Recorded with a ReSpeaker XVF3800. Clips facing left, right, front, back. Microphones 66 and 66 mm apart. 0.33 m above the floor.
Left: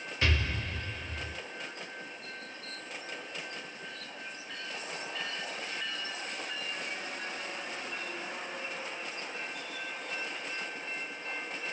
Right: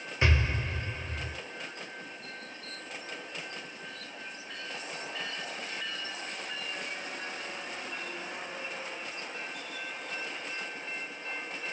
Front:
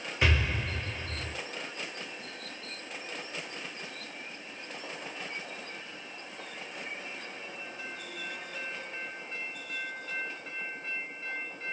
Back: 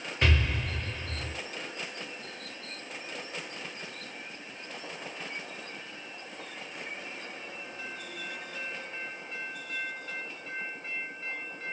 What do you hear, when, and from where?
0.2 s an explosion: 75° right, 1.2 m